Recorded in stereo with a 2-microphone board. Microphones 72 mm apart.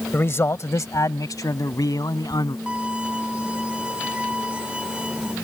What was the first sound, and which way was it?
A man speaking, 30° left (ahead or behind).